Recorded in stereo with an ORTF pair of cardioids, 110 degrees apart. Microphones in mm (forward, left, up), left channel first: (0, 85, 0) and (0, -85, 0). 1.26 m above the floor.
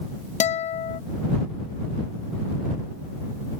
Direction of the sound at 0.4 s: 45° left.